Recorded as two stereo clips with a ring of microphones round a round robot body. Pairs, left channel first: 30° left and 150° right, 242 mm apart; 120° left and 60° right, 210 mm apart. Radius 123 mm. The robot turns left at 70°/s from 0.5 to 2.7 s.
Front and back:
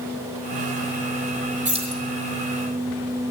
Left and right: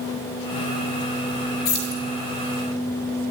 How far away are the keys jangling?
About 1.5 m.